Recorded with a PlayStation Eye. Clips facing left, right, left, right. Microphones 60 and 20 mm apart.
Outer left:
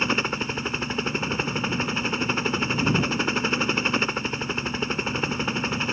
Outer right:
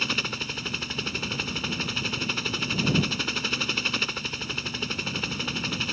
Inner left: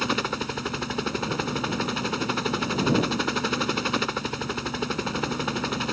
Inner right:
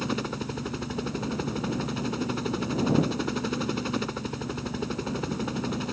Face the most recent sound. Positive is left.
turn(degrees=30)  # may be behind; listen again after turning